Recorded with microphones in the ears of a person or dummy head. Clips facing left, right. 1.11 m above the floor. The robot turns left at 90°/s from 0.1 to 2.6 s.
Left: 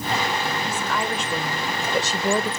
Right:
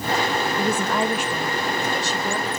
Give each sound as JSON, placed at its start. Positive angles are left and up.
{"t": 0.6, "sound": "a woman speaking", "azimuth_deg": -110, "distance_m": 0.7}